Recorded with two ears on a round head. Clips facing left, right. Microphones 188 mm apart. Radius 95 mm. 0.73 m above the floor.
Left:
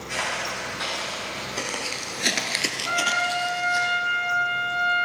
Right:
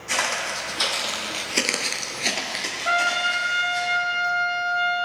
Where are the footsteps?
60° right (ahead or behind), 2.5 m; by 3.9 s 65° left (ahead or behind), 2 m.